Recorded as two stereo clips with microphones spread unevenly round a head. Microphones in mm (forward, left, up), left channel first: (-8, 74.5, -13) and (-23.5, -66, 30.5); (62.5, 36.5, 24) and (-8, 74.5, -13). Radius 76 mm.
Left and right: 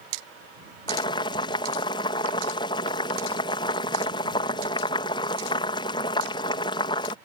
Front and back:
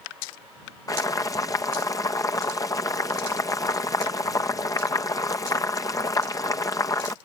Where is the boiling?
20° left.